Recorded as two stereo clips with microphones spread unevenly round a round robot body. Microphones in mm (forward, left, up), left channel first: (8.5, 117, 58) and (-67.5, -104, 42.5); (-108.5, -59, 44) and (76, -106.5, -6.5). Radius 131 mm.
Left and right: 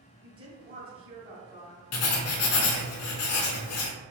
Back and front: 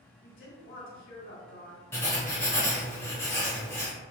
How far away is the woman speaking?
About 1.6 m.